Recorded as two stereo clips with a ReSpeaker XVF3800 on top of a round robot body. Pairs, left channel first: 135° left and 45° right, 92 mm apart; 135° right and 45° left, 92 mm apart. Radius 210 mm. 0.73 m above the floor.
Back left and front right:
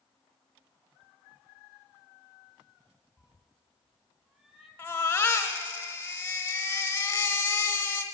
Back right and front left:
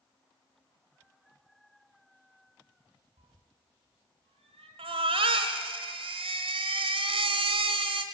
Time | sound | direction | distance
3.2 | a cat meowing | 35° left | 0.8 m
4.8 | a baby crying | 65° left | 0.8 m